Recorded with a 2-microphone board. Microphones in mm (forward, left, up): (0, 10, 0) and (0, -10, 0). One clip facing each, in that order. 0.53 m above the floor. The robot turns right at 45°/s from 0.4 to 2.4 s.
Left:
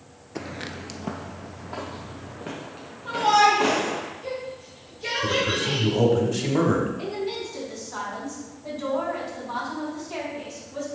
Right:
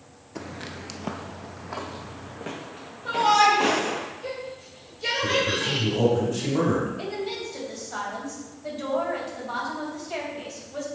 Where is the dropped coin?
I don't hear a dropped coin.